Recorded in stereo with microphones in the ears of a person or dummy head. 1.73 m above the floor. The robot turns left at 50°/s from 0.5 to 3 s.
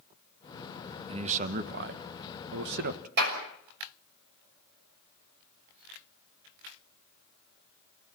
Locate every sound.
1.1 s a man speaking: 30° right, 1.5 m; by 3.1 s 125° right, 1.5 m
3.2 s a clap: 55° right (ahead or behind), 6 m